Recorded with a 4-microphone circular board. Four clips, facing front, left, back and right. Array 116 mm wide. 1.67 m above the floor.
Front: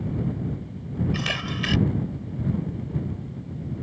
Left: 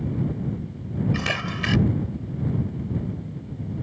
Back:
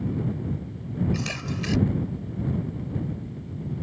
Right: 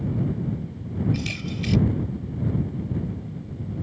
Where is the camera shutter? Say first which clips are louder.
Left 2 dB, front 2 dB; 75° left.